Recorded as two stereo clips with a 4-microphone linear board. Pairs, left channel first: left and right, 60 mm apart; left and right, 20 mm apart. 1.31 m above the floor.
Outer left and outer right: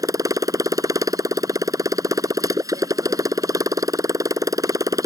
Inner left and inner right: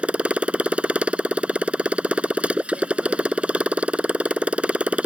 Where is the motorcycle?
80° right.